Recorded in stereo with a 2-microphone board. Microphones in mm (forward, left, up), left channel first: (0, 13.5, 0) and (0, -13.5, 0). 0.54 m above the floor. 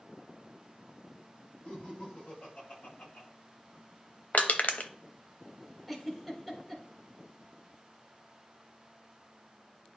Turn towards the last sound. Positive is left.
turn(degrees=15)  # may be behind; listen again after turning